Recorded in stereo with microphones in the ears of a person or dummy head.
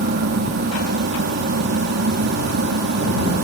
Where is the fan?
55° right (ahead or behind).